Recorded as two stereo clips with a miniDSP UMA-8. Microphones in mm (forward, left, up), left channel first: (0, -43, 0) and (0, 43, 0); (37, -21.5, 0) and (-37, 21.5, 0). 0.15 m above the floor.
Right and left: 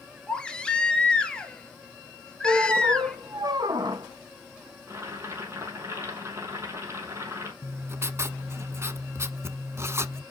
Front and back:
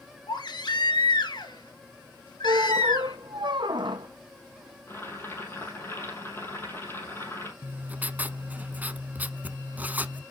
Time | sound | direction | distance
0.3 | a baby crying | 15° right | 1.2 m
2.4 | a squeak | 125° left | 1.3 m
4.9 | boiling | 30° left | 4.5 m
7.6 | writing | 100° left | 0.7 m